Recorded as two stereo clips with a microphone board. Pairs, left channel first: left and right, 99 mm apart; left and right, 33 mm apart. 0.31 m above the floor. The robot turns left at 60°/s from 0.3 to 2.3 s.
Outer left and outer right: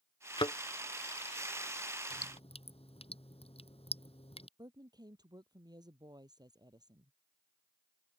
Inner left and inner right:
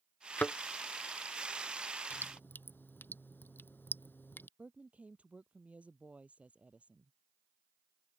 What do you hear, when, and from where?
0.4 s a thud: 55° left (ahead or behind); by 0.6 s 65° left (ahead or behind)
2.1 s dripping: 85° left; by 4.5 s 80° left
4.6 s a woman speaking: 45° right (ahead or behind)